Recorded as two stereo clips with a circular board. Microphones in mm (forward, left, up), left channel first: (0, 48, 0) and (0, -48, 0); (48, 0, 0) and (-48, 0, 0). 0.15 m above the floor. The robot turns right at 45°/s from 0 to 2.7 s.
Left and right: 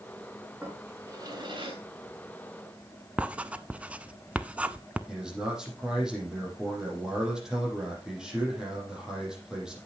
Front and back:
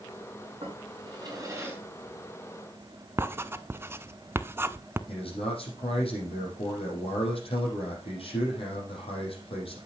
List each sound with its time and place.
0.6 s a drawer: 165° right, 6.5 m; by 1.8 s 110° right, 6.5 m
3.2 s writing: 150° right, 0.5 m
5.1 s a man speaking: 5° right, 5.5 m